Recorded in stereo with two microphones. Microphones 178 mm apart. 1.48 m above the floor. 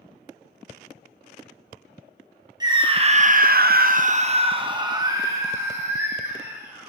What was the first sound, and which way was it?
A scream, 25° right (ahead or behind).